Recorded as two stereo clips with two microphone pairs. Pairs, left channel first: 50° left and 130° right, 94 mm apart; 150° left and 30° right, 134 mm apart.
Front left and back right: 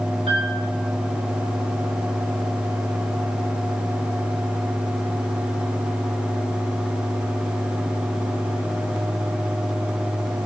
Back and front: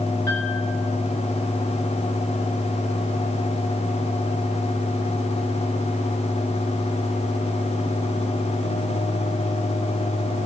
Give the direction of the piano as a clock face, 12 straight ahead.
5 o'clock.